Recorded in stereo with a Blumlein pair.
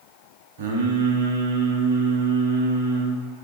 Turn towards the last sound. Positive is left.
turn(degrees=-50)